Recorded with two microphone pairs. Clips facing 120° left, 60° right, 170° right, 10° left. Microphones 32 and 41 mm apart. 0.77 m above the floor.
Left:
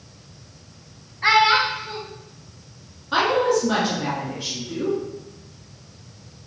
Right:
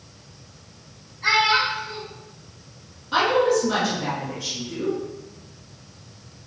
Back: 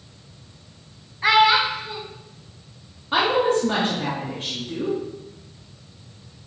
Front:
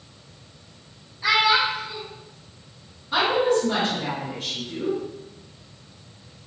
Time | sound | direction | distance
1.2 | a child speaking | 150° left | 0.6 m
3.1 | a woman speaking | 175° left | 0.9 m